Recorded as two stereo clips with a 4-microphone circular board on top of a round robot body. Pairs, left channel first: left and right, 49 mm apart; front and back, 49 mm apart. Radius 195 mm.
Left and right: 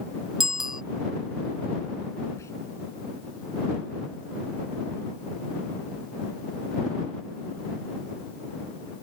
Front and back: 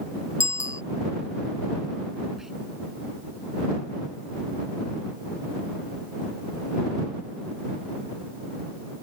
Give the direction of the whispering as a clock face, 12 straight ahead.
9 o'clock.